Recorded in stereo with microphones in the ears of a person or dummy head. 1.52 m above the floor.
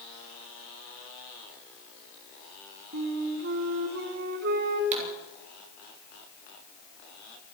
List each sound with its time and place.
2.9 s a flute: 45° right (ahead or behind), 2 m
4.9 s a pop: 40° right (ahead or behind), 6 m